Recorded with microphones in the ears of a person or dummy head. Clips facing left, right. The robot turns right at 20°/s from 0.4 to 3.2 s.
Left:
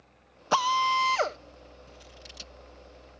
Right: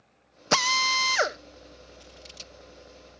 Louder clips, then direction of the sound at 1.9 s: Right 1 dB; 30° left (ahead or behind).